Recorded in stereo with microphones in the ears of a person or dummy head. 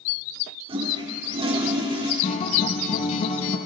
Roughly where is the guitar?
Left.